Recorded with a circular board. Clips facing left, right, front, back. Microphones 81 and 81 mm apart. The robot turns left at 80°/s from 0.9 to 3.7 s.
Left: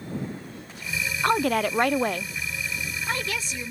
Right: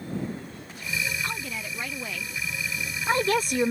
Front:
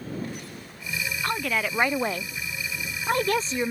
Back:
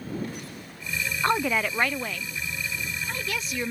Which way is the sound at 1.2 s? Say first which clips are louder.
Left 12 dB, back 4 dB; 125° left.